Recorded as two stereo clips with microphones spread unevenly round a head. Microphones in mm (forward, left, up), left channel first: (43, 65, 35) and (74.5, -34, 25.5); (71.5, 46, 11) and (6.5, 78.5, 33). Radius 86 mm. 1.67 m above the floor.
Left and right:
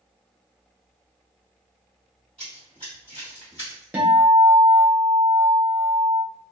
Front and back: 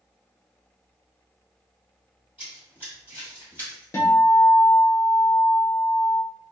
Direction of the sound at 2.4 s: Straight behind.